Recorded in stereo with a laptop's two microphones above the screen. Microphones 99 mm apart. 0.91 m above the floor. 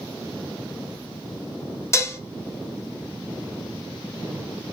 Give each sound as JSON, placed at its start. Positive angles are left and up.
{"t": 1.9, "sound": "dishes clattering", "side_deg": 30, "distance_m": 0.7}